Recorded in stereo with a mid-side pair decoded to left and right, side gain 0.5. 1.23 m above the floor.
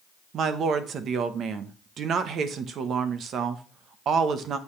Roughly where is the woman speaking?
Ahead right.